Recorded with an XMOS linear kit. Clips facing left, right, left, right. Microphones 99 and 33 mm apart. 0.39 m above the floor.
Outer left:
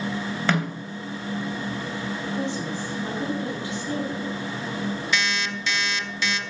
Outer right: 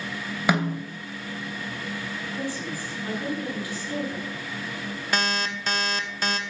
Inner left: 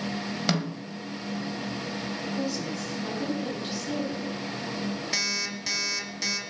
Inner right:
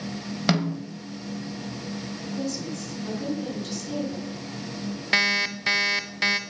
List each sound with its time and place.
0.5 s a snare drum: 10° right (ahead or behind), 2.5 m
2.4 s a woman speaking: 25° left (ahead or behind), 4.5 m
5.1 s an alarm clock: 45° right (ahead or behind), 1.2 m